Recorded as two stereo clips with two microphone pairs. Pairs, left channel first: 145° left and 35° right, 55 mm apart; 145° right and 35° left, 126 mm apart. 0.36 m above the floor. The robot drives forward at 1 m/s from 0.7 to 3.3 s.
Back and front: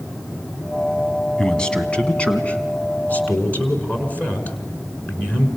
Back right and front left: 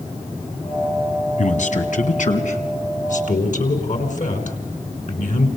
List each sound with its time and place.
1.4 s a man speaking: 135° right, 3.5 m; by 5.5 s 155° right, 5 m